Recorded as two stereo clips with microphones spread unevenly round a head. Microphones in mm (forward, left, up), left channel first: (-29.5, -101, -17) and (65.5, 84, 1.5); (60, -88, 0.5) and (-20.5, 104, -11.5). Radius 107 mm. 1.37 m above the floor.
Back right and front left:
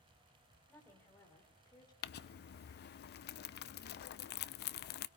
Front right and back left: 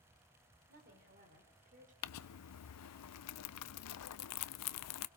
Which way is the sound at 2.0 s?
75° right.